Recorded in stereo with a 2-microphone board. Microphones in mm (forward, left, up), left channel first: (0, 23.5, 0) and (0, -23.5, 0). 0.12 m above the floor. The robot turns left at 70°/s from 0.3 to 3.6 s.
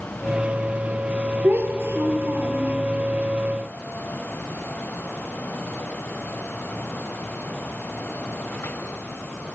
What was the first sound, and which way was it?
A child speaking, 40° right.